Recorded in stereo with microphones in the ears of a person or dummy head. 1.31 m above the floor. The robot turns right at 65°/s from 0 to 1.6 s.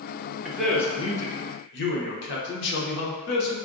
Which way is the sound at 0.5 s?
10° right.